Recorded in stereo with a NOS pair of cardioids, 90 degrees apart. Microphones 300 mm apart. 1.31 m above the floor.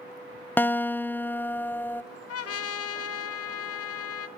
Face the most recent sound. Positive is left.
turn(degrees=55)